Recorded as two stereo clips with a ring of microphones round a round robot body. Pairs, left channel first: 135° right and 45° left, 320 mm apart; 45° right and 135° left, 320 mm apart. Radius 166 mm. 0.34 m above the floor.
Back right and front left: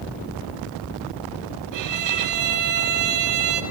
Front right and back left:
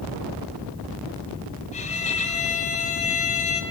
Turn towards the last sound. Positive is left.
turn(degrees=25)